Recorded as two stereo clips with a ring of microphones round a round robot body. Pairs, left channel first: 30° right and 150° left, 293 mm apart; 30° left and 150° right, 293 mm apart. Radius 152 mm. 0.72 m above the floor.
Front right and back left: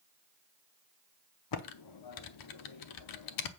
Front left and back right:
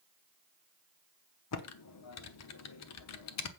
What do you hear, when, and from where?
1.5 s typing on a keyboard: 10° right, 0.9 m